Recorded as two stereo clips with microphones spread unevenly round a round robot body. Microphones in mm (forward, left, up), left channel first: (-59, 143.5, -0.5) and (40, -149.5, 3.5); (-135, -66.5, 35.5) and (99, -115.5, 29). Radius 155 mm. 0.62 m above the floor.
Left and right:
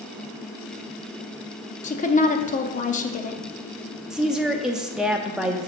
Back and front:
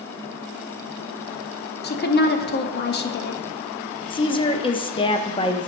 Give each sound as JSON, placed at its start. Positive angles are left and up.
{"t": 1.8, "sound": "a woman speaking", "azimuth_deg": 160, "distance_m": 0.7}
{"t": 4.1, "sound": "a woman speaking", "azimuth_deg": -155, "distance_m": 0.6}